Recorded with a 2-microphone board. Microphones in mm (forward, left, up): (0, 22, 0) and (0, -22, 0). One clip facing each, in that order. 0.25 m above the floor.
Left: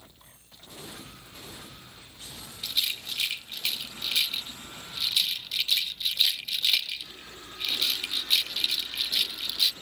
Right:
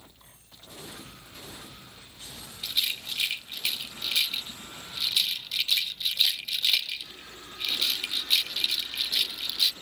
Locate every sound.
2.6 s a rattle: 10° right (ahead or behind), 1.1 m